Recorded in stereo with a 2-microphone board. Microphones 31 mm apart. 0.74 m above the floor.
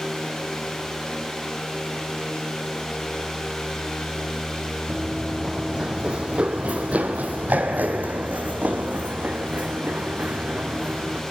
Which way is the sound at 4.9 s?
10° right (ahead or behind).